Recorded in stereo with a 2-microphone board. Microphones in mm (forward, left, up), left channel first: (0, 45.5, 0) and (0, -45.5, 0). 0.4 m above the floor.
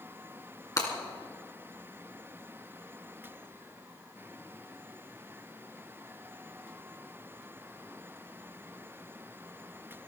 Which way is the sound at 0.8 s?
40° left (ahead or behind).